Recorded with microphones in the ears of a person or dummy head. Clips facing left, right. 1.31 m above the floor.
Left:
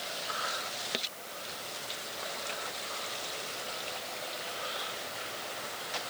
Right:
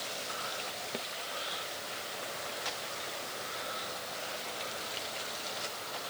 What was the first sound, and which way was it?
Only background noise.